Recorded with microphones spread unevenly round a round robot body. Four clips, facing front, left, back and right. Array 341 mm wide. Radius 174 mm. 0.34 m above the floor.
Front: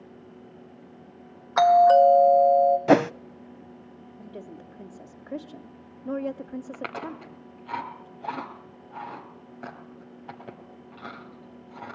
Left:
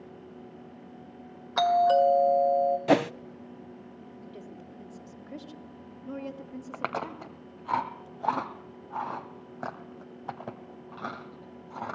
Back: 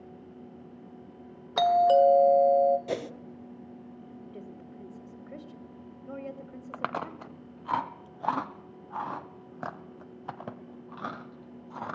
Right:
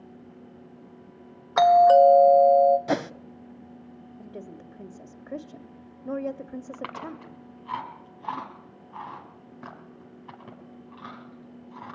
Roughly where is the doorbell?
Behind right.